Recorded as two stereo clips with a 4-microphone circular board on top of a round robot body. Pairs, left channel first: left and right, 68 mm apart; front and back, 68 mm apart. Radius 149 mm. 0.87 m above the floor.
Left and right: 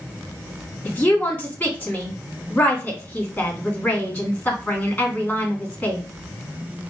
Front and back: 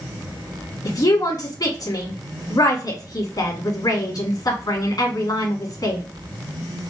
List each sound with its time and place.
0.8 s a woman speaking: 20° left, 2.5 m